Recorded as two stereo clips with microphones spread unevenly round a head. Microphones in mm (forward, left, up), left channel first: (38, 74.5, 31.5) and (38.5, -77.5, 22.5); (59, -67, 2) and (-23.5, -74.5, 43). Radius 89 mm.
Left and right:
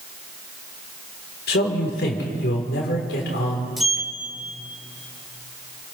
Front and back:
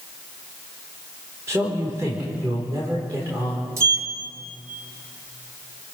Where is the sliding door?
Straight behind, 1.1 m.